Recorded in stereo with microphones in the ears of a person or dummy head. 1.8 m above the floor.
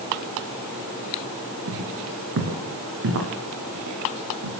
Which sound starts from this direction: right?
Footsteps, at 1.7 s.